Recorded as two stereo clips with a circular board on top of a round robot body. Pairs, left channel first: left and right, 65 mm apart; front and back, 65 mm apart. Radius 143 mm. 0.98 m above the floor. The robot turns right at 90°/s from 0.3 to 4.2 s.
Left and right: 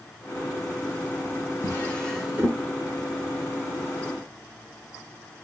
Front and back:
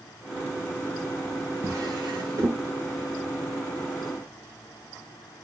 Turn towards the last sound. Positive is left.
turn(degrees=5)